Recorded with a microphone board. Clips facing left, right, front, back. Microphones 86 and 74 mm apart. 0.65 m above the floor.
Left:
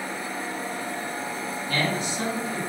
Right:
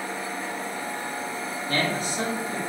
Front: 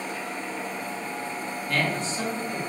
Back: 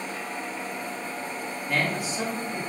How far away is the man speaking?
About 1.0 m.